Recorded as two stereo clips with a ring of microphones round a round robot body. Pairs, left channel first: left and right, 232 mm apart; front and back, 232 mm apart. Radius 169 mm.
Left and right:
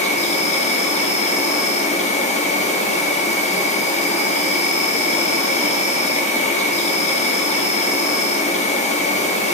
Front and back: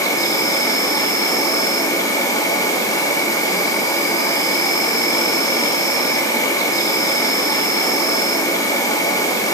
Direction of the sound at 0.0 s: 65° left.